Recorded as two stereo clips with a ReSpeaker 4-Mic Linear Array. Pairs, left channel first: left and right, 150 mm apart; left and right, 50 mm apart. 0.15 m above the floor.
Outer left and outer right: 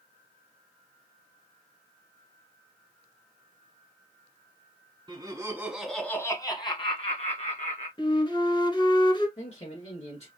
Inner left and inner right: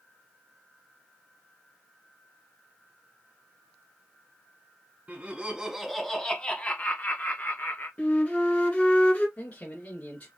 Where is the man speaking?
45° left (ahead or behind), 2 m.